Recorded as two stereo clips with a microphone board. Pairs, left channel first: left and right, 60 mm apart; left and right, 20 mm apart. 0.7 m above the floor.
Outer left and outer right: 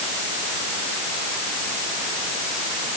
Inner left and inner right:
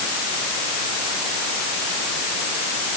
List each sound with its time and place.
Only background noise.